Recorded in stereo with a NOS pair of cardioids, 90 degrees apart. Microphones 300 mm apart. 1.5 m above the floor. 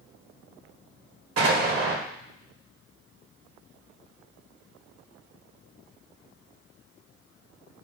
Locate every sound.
1.4 s an explosion: 50° right, 1.6 m